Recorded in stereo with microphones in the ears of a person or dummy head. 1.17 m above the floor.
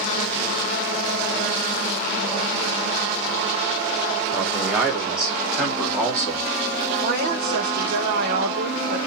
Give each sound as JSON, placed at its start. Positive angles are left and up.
{"t": 4.3, "sound": "a man speaking", "side_deg": -10, "distance_m": 3.0}
{"t": 7.0, "sound": "a woman speaking", "side_deg": -55, "distance_m": 2.0}